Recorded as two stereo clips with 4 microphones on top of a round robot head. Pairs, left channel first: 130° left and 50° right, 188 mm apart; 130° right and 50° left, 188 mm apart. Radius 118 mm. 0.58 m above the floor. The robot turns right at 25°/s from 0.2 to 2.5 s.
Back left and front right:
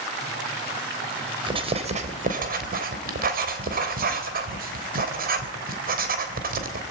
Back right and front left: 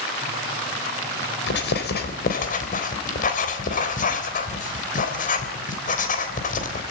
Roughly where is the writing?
Right.